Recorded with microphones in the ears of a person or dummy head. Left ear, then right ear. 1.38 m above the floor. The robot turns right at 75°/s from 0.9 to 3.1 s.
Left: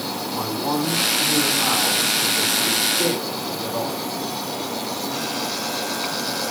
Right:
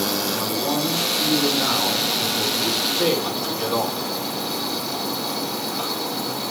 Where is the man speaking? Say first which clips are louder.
Right 1 dB; 75° left, 5 m; by 4.0 s 120° right, 5 m.